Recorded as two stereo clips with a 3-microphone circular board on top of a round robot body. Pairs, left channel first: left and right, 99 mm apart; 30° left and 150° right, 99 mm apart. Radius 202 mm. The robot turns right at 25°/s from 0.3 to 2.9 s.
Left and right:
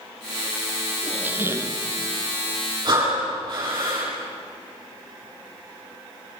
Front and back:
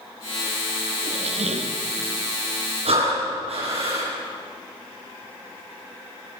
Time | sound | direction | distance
1.0 | a squeak | 170° right | 1.3 m
2.9 | breathing | 135° right | 9.5 m